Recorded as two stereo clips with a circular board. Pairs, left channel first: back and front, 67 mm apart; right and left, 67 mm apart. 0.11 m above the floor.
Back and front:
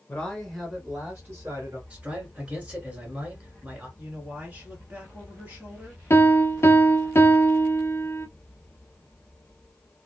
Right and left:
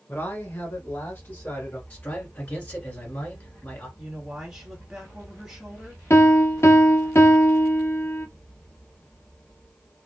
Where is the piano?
135° right, 0.6 m.